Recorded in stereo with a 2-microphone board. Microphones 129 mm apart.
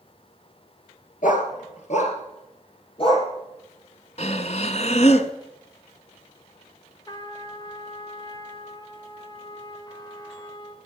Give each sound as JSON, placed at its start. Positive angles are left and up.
{"t": 1.2, "sound": "a dog barking", "side_deg": 85, "distance_m": 2.5}
{"t": 4.2, "sound": "breathing", "side_deg": 60, "distance_m": 1.0}
{"t": 7.1, "sound": "a trumpet", "side_deg": 30, "distance_m": 1.4}